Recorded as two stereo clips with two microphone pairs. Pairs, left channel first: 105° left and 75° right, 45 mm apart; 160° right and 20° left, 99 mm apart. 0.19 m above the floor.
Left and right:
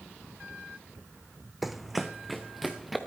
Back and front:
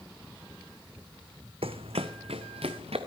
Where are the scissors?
I don't hear scissors.